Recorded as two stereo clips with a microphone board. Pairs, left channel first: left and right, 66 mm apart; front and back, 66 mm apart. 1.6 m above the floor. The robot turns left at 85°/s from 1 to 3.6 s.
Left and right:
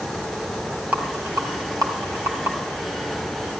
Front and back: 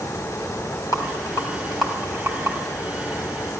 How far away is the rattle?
About 3.5 m.